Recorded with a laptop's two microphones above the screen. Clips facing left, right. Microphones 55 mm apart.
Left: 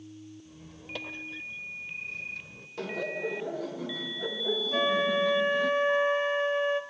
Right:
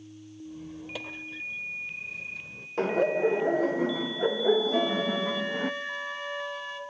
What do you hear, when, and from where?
0.5 s a squeak: centre (ahead or behind), 1.4 m
2.8 s laughter: 40° right (ahead or behind), 0.6 m
4.7 s a flute: 35° left (ahead or behind), 1.8 m